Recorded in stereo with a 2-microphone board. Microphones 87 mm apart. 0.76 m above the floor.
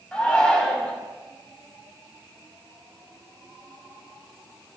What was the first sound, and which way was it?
A shout, 10° left (ahead or behind).